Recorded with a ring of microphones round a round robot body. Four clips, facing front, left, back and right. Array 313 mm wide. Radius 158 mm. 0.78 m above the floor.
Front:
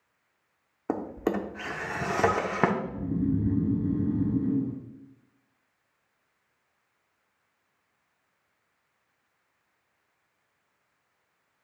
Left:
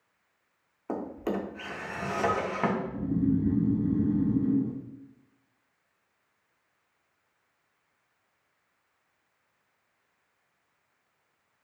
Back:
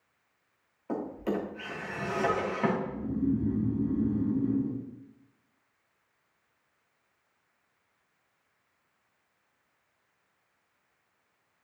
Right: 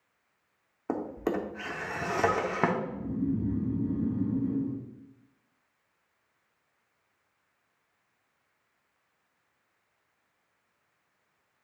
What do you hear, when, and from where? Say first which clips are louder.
0.9 s a drawer: right 1 dB, front 3 dB; 20° right, 0.9 m
2.8 s snoring: left 3 dB, front 1 dB; 40° left, 1.7 m